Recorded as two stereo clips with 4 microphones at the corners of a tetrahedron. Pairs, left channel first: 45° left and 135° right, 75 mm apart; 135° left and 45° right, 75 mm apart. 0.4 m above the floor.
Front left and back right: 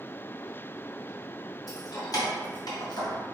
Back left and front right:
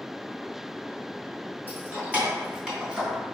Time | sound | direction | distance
1.7 | keys jangling | 10° left | 2.0 m